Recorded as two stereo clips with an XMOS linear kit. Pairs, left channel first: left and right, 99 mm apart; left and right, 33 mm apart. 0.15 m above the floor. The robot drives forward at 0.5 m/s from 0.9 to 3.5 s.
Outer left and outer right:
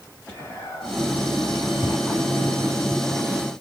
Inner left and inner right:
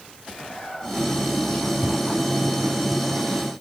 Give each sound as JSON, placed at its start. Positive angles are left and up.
{"t": 0.3, "sound": "whispering", "side_deg": 35, "distance_m": 2.5}